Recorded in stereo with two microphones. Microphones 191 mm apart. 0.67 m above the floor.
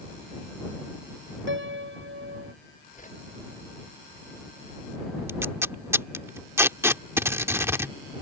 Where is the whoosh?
40° left (ahead or behind).